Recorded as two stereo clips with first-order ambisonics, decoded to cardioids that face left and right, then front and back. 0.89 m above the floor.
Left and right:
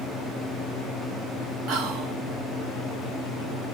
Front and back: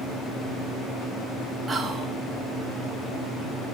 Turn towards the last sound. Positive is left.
turn(degrees=-115)